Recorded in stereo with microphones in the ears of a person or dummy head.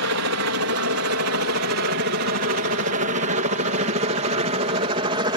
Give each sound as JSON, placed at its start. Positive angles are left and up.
{"t": 0.0, "sound": "a helicopter", "side_deg": -65}